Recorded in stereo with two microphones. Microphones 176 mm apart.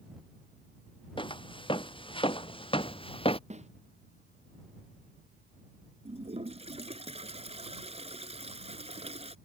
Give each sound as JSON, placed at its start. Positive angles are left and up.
{"t": 1.2, "sound": "footsteps", "side_deg": 30}
{"t": 3.5, "sound": "a snare drum", "side_deg": -40}
{"t": 6.0, "sound": "a toilet flushing", "side_deg": -35}